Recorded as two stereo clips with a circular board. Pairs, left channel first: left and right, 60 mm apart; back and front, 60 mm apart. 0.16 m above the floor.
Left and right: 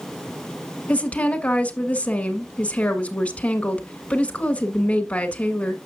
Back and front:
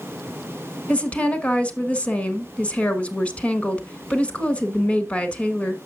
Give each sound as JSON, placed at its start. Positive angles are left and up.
{"t": 0.9, "sound": "a woman speaking", "azimuth_deg": 130, "distance_m": 1.2}